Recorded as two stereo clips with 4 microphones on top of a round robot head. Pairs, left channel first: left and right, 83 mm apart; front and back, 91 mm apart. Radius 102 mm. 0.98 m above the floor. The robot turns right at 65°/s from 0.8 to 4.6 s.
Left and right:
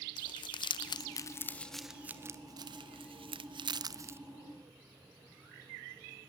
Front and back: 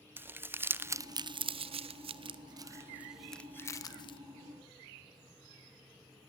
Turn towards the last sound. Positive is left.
turn(degrees=0)